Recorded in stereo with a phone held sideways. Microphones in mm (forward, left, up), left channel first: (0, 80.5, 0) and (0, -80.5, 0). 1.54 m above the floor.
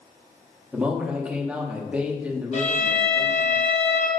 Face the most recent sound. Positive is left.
turn(degrees=45)  # may be behind; listen again after turning